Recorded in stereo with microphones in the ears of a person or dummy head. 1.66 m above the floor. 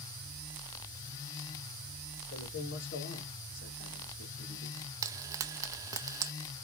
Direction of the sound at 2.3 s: 85° left.